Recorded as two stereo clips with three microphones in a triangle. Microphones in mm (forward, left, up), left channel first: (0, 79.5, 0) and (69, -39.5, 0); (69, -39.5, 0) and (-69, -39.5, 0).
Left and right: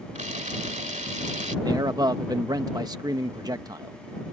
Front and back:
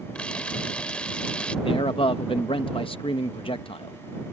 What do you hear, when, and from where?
0.1 s a camera shutter: 80° right
1.6 s a man speaking: 15° right